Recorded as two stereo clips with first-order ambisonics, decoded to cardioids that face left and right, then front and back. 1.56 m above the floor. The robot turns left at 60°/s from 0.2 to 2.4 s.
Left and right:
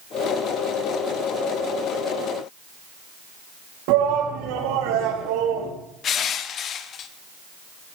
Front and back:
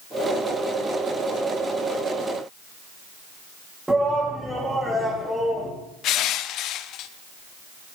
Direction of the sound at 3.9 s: 95° right.